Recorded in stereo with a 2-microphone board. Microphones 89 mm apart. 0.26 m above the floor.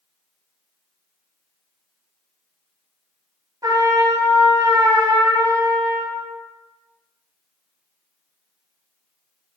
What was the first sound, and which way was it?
A trumpet, 40° right (ahead or behind).